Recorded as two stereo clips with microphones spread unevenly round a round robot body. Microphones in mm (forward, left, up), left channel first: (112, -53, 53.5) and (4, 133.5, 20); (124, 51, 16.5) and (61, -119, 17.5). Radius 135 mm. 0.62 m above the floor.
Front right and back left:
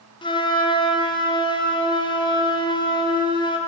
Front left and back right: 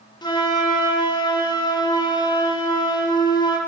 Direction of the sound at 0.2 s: 10° left.